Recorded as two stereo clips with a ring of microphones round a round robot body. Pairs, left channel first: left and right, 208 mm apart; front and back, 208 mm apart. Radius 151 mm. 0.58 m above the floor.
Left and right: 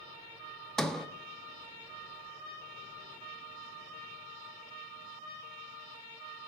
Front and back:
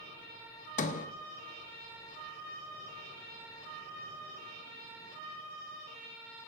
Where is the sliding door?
5° left, 0.5 m.